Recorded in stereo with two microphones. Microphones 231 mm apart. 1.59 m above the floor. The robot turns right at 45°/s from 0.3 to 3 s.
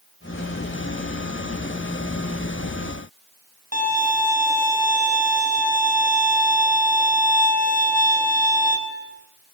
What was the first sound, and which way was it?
A violin, 35° left (ahead or behind).